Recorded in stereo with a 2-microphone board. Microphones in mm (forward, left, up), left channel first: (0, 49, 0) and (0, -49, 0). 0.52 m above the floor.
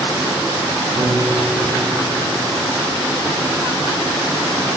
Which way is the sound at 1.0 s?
40° right (ahead or behind).